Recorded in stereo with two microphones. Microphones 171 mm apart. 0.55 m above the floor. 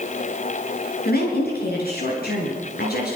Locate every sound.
1.1 s a woman speaking: 65° left (ahead or behind), 9.5 m